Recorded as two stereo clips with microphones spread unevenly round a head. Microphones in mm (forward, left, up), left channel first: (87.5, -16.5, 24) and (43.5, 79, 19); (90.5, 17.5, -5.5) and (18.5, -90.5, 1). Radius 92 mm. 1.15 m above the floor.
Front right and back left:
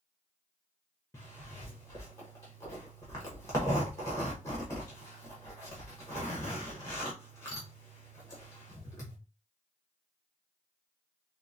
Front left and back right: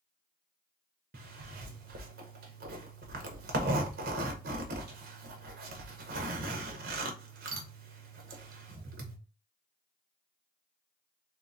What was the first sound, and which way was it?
A zipper, 140° right.